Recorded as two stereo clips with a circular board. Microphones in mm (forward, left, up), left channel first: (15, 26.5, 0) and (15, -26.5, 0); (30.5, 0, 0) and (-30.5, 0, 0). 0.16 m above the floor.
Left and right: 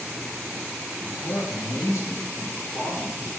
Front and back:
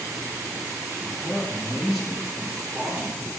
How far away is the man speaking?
About 3 m.